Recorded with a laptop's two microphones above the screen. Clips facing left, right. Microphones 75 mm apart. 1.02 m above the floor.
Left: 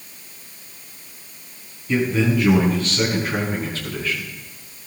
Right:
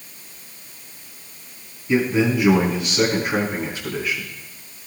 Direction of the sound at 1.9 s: 15° right (ahead or behind).